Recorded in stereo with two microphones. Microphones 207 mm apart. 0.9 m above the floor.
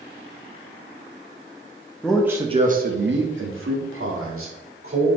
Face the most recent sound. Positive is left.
turn(degrees=-75)  # may be behind; listen again after turning